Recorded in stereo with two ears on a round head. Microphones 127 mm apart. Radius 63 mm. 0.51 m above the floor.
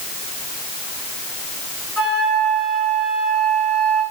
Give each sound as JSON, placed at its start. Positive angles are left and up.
{"t": 2.0, "sound": "a flute", "side_deg": 5, "distance_m": 6.0}